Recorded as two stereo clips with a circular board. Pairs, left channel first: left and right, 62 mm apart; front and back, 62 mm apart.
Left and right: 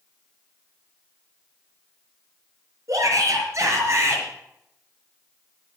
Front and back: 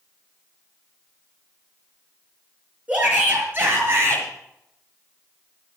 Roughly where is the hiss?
No hiss in this recording.